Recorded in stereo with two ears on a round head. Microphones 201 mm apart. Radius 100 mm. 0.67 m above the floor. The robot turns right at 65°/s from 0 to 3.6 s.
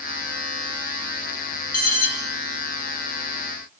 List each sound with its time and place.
1.7 s an alarm: 40° left (ahead or behind), 1.7 m; by 2.1 s 30° left (ahead or behind), 1.7 m